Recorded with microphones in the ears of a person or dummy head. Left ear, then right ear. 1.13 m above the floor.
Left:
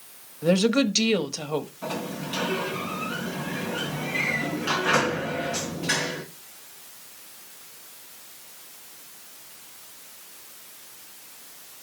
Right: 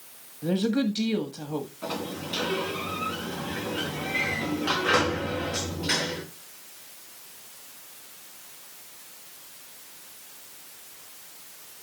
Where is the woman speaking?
45° left (ahead or behind), 1.0 m.